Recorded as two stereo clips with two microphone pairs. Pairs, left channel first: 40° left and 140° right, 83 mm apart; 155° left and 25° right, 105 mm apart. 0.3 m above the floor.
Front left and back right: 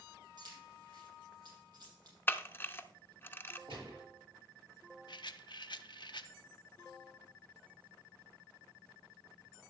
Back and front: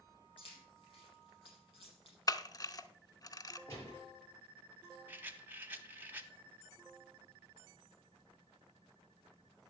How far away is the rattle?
About 0.6 m.